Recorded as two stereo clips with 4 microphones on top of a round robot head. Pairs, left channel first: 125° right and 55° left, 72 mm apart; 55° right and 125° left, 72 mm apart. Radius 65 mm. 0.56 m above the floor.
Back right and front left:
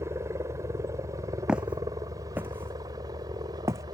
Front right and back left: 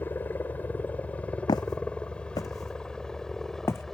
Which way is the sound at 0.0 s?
5° left.